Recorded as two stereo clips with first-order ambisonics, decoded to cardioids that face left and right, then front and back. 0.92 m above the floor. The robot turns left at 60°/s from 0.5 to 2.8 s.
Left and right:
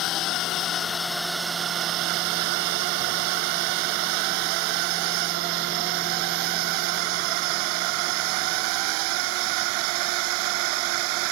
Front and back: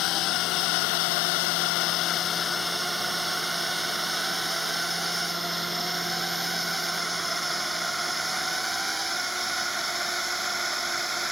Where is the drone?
45° left; by 11.3 s 100° right.